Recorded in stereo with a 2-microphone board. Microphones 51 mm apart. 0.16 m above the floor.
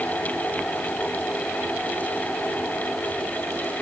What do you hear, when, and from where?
Only background noise.